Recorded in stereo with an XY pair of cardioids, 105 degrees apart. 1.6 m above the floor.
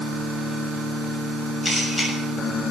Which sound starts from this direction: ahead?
A camera shutter, at 1.6 s.